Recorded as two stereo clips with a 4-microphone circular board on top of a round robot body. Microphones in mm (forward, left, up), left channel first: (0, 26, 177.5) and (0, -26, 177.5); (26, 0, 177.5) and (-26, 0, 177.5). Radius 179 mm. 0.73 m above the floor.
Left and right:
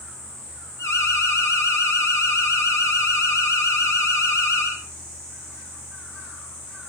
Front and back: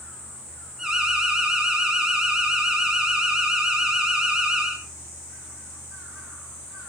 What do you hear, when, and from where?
0.8 s an alarm: 100° left, 4.5 m